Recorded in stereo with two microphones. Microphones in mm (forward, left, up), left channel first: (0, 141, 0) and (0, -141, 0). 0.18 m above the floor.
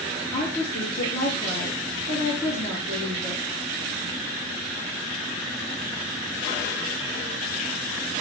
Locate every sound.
0.3 s a woman speaking: 65° left (ahead or behind), 3 m